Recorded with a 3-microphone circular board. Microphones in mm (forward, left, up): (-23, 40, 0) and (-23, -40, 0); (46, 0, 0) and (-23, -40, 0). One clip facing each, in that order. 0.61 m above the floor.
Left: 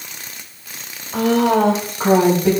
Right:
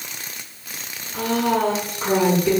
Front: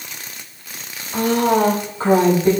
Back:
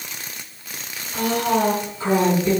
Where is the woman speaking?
85° left, 2.0 m; by 2.5 s 75° left, 3 m.